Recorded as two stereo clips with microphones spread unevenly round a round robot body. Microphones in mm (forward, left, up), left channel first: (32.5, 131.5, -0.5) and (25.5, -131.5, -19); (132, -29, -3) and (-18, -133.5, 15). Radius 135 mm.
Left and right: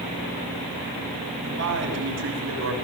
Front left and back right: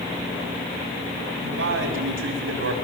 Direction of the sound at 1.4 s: 145° right.